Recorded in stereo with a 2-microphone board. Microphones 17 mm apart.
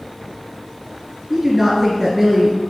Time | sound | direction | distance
1.3 | a woman speaking | 5° right (ahead or behind) | 2.5 m